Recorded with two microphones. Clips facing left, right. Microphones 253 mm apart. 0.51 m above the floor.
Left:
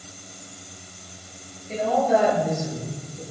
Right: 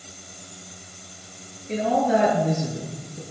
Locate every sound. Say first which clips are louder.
1.7 s a woman speaking: even; 80° right, 8.5 m